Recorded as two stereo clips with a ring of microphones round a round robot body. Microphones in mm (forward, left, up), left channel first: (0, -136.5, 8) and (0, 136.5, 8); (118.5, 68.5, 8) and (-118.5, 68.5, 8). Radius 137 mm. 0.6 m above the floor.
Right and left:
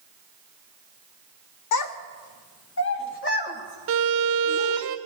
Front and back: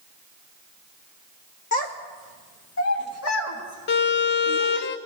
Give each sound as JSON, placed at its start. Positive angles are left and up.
{"t": 1.7, "sound": "a child speaking", "azimuth_deg": -65, "distance_m": 1.0}
{"t": 3.9, "sound": "a violin", "azimuth_deg": 45, "distance_m": 0.6}